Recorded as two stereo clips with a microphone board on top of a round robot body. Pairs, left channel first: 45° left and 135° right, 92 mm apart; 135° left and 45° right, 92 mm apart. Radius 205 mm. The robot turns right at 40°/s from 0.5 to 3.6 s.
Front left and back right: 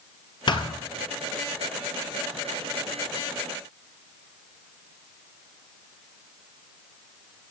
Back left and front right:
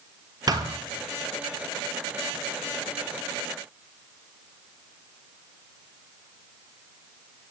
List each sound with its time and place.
0.5 s a thud: 5° left, 1.4 m; by 0.8 s 15° left, 1.4 m